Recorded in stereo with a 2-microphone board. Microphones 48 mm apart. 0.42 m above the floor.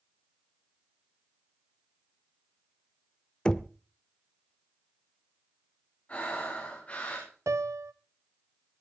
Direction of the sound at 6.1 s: 35° left (ahead or behind).